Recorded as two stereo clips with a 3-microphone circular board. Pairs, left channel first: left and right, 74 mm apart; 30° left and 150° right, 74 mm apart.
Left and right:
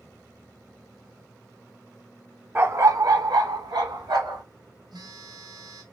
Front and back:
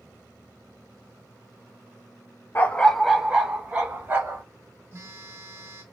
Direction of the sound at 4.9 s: 100° right.